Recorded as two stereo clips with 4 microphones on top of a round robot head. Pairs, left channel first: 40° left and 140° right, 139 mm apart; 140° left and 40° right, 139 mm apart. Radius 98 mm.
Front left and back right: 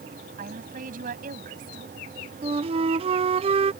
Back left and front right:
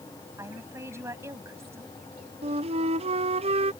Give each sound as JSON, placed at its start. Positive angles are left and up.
{"t": 0.4, "sound": "a woman speaking", "azimuth_deg": -115}
{"t": 2.4, "sound": "a flute", "azimuth_deg": -90}